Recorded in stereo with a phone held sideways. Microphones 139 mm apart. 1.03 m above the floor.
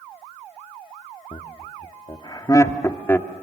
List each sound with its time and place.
1.3 s laughter: 50° left (ahead or behind), 1.6 m; by 3.3 s 15° left (ahead or behind), 1.8 m